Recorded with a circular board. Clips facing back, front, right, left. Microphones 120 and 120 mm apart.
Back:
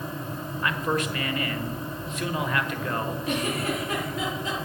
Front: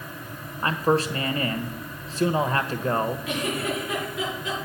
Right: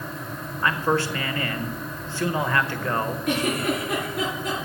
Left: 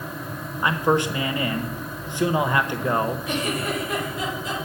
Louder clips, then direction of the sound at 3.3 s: Even, right 2 dB; 125° right.